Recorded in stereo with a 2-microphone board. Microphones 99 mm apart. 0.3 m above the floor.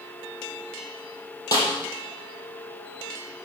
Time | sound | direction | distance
1.5 | a snare drum | 35° left (ahead or behind) | 5 m